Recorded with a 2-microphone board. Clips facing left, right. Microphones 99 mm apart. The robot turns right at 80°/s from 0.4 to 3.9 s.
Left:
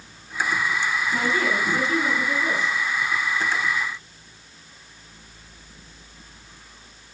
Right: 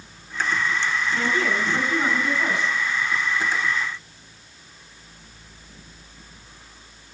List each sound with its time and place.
1.1 s a woman speaking: 135° left, 8 m; by 2.8 s 95° right, 8 m